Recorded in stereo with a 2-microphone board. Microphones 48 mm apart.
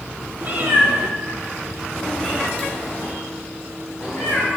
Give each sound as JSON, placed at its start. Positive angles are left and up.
{"t": 0.4, "sound": "a cat meowing", "side_deg": -40, "distance_m": 1.3}